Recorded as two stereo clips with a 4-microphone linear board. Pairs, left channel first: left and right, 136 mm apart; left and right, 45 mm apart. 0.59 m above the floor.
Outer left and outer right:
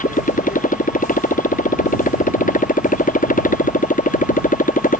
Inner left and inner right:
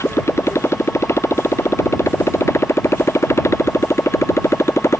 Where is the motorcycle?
80° left; by 5.0 s 85° left.